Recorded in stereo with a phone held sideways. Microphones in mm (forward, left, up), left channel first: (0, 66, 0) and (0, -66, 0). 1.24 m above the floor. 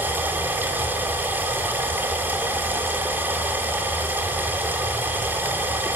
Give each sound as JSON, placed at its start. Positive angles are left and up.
{"t": 0.0, "sound": "running water", "side_deg": -15, "distance_m": 2.0}